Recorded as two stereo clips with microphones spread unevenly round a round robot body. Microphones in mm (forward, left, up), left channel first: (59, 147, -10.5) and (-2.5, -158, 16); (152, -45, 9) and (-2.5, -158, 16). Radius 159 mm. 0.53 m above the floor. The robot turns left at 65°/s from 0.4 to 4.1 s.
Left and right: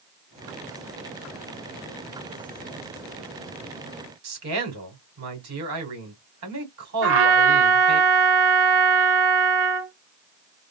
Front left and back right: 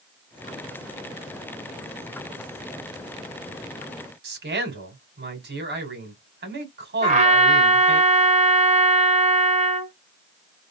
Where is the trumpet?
120° right, 1.5 m.